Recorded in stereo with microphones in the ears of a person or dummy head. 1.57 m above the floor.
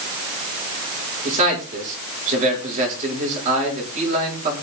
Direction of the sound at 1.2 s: 45° right (ahead or behind).